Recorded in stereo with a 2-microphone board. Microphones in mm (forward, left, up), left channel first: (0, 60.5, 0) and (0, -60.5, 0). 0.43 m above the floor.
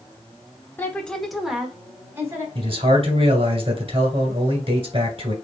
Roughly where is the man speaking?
Right.